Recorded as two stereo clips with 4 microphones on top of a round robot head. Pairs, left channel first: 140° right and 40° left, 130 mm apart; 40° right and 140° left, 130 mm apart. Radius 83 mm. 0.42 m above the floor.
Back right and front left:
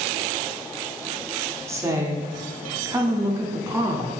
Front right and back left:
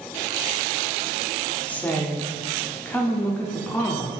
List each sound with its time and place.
1.7 s a woman speaking: 20° left, 0.7 m